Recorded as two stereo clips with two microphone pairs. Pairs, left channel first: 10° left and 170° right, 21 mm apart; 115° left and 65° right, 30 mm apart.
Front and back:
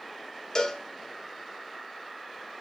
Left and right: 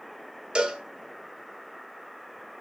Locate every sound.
0.6 s a cowbell: 20° right, 0.9 m